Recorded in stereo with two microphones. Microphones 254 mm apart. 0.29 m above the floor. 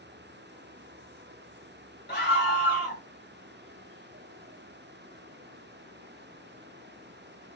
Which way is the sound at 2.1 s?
40° left (ahead or behind).